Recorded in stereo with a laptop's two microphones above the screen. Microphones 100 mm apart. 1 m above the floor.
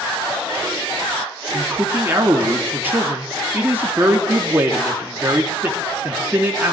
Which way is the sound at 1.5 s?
20° right (ahead or behind).